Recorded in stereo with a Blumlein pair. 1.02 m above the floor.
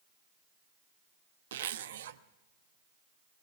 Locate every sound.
1.5 s a zipper: 60° right, 0.8 m